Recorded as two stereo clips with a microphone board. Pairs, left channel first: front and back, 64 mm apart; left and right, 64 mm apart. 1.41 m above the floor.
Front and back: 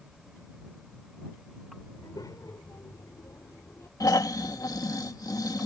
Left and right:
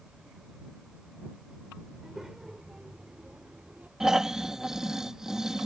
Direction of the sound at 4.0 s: 10° right.